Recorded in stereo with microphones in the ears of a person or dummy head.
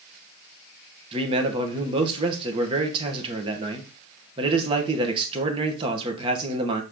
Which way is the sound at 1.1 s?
30° right (ahead or behind).